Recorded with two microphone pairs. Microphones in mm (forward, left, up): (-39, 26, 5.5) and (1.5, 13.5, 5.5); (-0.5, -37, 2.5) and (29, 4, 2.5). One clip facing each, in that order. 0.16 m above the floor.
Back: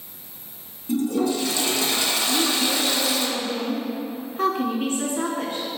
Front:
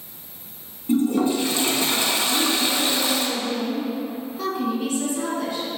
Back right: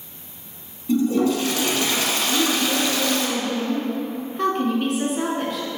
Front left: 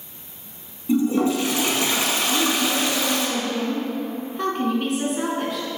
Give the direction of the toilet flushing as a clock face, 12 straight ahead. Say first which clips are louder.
Front 3 dB, even; 12 o'clock.